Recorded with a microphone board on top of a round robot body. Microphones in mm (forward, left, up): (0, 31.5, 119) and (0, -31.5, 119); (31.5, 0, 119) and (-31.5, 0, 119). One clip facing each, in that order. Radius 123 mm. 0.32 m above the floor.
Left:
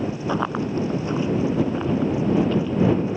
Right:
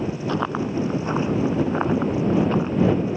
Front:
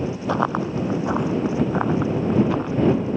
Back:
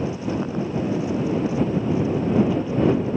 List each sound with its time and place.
0.3 s running footsteps: 10° left; by 2.8 s 35° right